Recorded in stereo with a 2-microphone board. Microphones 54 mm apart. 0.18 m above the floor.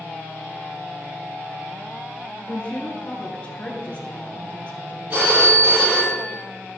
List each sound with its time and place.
2.5 s a woman speaking: 20° left (ahead or behind), 2.5 m
5.1 s a phone ringing: 40° right (ahead or behind), 4 m